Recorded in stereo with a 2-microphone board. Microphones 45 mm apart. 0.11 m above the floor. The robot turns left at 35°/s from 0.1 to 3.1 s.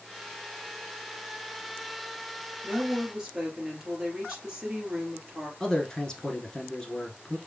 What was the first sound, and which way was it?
A woman speaking, 25° right (ahead or behind).